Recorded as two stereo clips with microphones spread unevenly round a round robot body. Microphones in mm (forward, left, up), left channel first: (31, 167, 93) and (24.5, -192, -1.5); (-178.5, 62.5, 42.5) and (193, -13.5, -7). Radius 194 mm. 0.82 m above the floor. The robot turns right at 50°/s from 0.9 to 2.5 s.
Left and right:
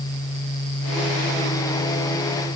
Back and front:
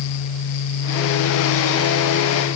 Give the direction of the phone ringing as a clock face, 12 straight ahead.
I don't hear a phone ringing.